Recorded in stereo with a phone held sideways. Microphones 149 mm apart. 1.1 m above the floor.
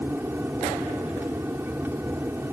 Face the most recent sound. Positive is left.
turn(degrees=-15)  # may be behind; listen again after turning